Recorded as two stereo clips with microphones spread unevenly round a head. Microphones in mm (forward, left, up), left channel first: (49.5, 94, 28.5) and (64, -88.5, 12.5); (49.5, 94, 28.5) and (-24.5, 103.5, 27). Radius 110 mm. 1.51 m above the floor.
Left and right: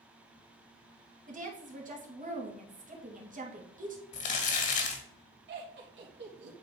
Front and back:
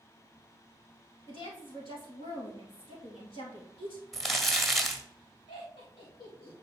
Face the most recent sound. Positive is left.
turn(degrees=-60)